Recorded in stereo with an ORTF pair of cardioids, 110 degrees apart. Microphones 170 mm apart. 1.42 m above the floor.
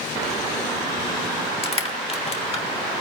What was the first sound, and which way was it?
Crushing, 35° left.